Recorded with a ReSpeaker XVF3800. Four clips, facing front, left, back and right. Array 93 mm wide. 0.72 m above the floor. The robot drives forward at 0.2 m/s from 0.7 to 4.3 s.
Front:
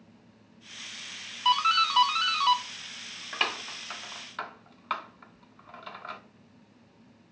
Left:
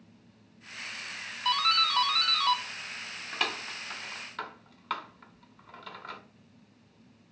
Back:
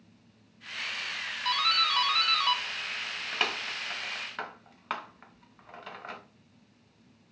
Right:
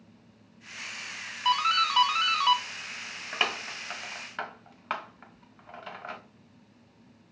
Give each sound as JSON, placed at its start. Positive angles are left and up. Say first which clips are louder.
{"t": 1.4, "sound": "a doorbell", "louder": "right 3 dB, front 5 dB", "azimuth_deg": -45, "distance_m": 0.9}